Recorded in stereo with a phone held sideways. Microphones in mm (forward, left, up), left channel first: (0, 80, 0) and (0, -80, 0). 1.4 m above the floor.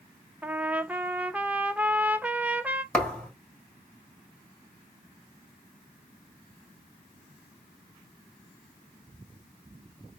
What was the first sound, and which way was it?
A trumpet, 10° right (ahead or behind).